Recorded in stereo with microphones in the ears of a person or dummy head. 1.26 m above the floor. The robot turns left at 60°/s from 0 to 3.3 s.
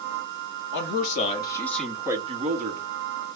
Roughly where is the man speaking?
Left.